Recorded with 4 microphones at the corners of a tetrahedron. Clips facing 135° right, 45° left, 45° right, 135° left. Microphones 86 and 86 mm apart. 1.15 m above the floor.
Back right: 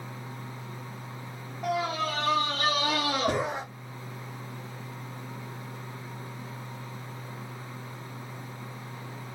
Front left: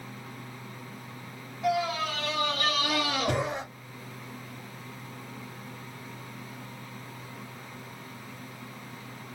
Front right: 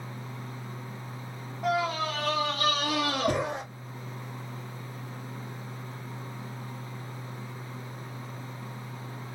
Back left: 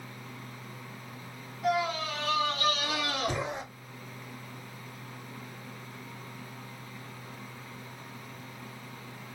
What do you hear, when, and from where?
1.6 s a scream: 90° right, 2.5 m; by 3.6 s 55° right, 2.5 m